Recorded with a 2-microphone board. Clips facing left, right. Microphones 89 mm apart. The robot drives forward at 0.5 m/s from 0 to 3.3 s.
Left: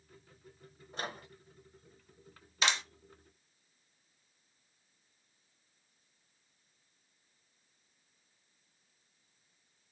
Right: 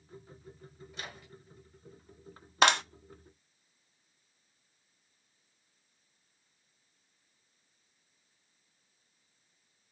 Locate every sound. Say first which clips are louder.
0.9 s a microwave: left 6 dB; 40° left (ahead or behind), 2 m; by 1.3 s 45° left (ahead or behind), 2 m
2.6 s a clap: right 8 dB; 55° right (ahead or behind), 0.7 m; by 2.8 s 60° right (ahead or behind), 0.7 m